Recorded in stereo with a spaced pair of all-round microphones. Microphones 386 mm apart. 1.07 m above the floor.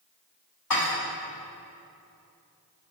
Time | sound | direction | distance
0.7 | dishes clattering | 60° left (ahead or behind) | 1.0 m